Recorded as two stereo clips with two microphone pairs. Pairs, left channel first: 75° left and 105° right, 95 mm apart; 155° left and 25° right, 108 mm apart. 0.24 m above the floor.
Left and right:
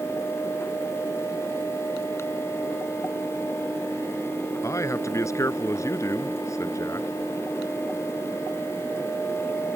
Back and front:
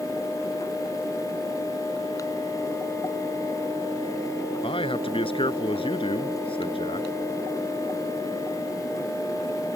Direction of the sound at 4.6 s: 130° left.